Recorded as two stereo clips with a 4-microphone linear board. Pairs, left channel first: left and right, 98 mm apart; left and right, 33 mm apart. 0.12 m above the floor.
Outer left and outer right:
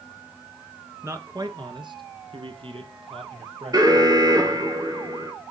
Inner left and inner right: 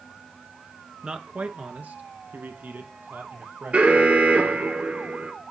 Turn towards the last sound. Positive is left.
turn(degrees=-40)  # may be behind; listen again after turning